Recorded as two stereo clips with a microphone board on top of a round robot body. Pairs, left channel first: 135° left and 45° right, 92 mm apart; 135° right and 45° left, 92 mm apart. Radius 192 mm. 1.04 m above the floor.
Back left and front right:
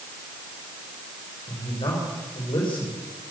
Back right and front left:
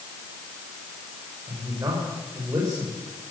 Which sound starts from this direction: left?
A man speaking, at 1.5 s.